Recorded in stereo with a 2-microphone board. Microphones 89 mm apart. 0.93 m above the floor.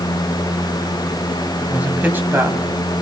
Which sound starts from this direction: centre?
A man speaking, at 1.6 s.